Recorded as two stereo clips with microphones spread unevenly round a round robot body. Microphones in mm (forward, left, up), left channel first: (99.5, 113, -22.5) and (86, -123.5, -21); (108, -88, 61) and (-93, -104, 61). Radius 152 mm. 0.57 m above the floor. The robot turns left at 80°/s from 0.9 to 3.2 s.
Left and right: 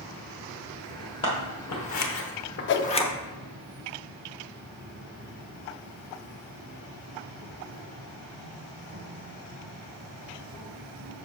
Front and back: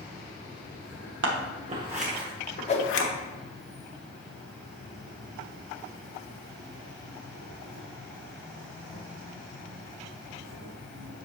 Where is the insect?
100° left, 2.5 m; by 11.3 s 85° right, 2.5 m.